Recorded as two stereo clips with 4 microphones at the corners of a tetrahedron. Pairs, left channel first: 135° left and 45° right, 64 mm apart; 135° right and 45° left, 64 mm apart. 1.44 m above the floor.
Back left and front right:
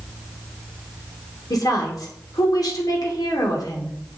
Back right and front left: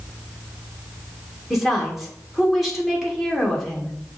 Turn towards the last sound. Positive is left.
turn(degrees=135)